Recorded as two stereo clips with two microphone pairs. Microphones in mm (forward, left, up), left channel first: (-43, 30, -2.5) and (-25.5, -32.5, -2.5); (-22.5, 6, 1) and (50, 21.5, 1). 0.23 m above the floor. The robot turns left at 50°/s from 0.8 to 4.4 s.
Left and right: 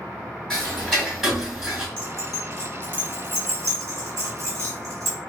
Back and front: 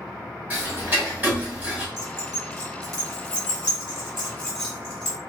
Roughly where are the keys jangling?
Ahead left.